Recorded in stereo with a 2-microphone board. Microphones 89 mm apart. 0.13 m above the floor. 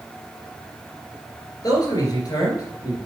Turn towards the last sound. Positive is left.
turn(degrees=45)  # may be behind; listen again after turning